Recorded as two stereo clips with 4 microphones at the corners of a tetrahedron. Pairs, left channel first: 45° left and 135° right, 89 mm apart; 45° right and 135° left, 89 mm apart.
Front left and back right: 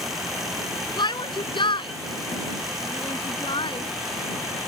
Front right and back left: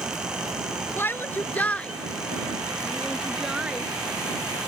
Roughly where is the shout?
Ahead.